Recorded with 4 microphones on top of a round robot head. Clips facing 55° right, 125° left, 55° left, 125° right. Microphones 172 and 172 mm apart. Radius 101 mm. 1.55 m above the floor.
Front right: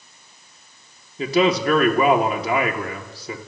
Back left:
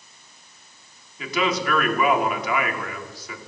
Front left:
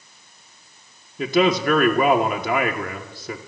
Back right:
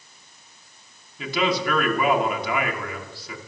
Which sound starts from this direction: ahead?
A man speaking, at 1.2 s.